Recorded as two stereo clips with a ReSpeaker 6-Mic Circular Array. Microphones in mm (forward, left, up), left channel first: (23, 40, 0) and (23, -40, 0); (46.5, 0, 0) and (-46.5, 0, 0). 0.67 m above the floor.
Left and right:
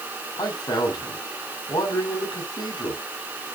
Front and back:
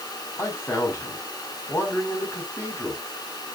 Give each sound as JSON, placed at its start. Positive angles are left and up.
{"t": 0.4, "sound": "a man speaking", "azimuth_deg": 60, "distance_m": 5.0}